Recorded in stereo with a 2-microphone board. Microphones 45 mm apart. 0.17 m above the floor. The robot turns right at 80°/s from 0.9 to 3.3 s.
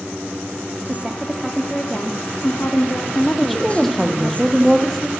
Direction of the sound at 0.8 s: 40° right.